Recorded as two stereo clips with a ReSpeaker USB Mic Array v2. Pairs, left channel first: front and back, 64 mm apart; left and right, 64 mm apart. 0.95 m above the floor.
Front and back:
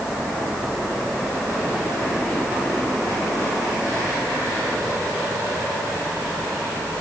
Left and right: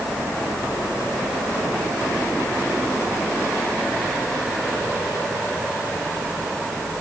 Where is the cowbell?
No cowbell in this recording.